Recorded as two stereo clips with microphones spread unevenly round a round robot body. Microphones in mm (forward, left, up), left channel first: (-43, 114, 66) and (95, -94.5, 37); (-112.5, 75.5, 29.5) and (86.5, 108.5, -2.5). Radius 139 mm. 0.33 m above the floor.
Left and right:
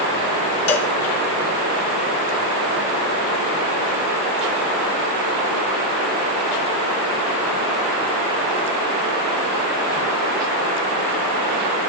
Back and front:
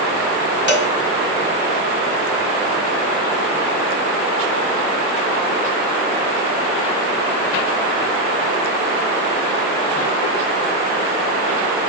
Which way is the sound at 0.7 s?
160° left.